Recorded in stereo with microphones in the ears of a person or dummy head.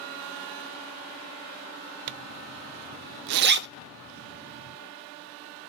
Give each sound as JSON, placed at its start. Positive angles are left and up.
{"t": 2.1, "sound": "a zipper", "side_deg": -55, "distance_m": 0.6}